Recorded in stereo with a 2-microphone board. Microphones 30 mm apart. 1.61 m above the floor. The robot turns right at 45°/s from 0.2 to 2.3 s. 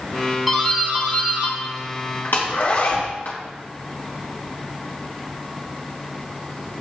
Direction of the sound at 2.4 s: 70° left (ahead or behind).